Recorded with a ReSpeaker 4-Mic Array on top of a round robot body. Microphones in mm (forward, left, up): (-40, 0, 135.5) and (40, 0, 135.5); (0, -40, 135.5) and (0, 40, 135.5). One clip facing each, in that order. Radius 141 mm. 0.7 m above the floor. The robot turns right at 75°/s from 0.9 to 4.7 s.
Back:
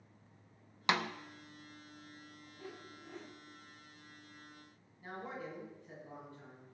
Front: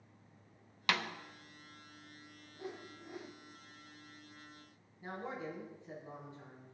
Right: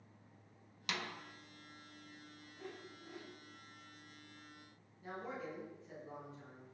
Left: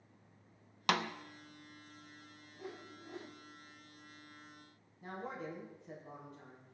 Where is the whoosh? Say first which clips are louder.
Front 4 dB, left 3 dB; 25° left, 1.0 m; by 3.4 s 90° left, 1.0 m.